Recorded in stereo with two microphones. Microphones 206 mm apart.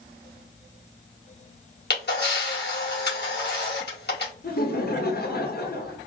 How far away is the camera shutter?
About 1.9 m.